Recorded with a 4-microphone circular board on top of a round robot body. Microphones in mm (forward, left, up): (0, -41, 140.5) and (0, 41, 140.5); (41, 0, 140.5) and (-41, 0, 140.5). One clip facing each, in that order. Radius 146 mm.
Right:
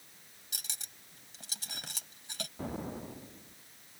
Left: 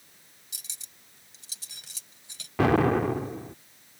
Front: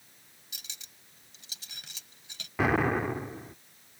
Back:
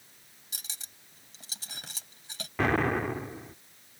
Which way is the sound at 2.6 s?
85° left.